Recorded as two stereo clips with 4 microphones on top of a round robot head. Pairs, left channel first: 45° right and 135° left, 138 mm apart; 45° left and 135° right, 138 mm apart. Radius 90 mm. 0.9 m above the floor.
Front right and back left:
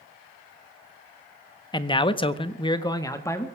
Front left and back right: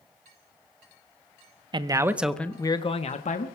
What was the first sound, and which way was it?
A man speaking, 90° right.